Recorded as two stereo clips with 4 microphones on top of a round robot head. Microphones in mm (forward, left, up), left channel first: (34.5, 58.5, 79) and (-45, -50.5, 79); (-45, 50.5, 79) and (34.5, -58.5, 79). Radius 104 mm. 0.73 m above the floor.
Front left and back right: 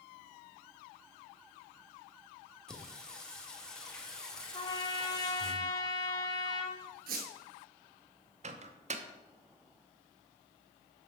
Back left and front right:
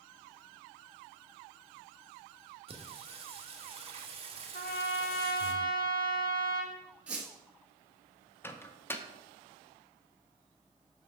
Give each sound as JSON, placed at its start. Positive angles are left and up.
{"t": 2.7, "sound": "singing", "azimuth_deg": -30, "distance_m": 1.3}
{"t": 4.5, "sound": "a trumpet", "azimuth_deg": 110, "distance_m": 0.5}
{"t": 7.1, "sound": "a squeak", "azimuth_deg": -135, "distance_m": 1.0}
{"t": 8.4, "sound": "a microwave", "azimuth_deg": -160, "distance_m": 0.7}